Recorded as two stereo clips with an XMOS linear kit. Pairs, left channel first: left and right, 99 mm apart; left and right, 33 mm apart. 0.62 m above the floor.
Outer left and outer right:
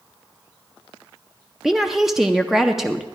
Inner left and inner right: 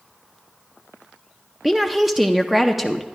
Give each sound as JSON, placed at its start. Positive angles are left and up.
{"t": 1.6, "sound": "a woman speaking", "side_deg": -5, "distance_m": 0.5}